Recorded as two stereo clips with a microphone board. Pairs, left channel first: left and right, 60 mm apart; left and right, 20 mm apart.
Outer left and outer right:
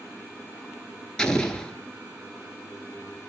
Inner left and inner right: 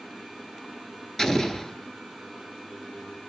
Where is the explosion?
15° left (ahead or behind), 0.6 m.